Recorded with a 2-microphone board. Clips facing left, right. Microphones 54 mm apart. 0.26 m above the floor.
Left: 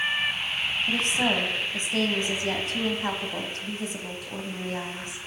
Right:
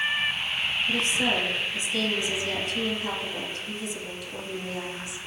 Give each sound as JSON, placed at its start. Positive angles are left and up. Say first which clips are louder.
{"t": 0.9, "sound": "a woman speaking", "louder": "left 1 dB", "side_deg": 45, "distance_m": 1.4}